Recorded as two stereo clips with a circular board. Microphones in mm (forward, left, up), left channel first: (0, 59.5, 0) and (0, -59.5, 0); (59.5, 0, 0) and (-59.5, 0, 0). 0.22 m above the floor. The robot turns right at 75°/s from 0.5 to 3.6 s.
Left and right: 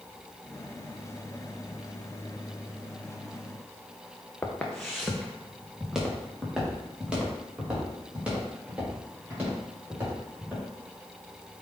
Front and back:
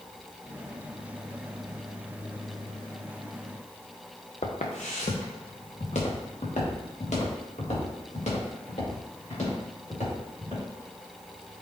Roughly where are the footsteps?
Ahead.